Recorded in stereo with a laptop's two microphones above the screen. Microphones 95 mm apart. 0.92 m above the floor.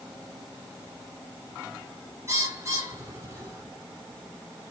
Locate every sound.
2.3 s a bird: 30° right (ahead or behind), 2.5 m